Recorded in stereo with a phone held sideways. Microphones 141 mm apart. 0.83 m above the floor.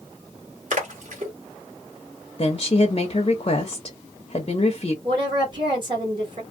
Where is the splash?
60° right (ahead or behind), 1.3 m.